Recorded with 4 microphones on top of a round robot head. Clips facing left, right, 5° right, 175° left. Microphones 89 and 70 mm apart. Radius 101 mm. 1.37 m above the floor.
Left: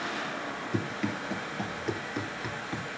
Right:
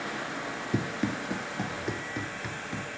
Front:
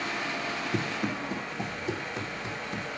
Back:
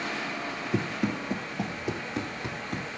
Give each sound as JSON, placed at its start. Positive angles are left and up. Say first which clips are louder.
{"t": 0.7, "sound": "running footsteps", "louder": "right 2 dB, back 4 dB", "azimuth_deg": -125, "distance_m": 1.6}